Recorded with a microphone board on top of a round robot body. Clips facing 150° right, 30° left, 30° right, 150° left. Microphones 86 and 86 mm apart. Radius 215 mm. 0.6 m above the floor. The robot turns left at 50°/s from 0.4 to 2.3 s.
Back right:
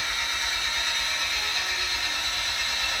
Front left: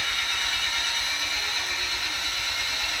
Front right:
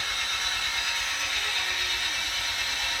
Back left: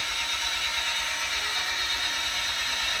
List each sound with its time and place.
0.0 s an engine running: 80° right, 2.5 m; by 3.0 s 175° right, 2.5 m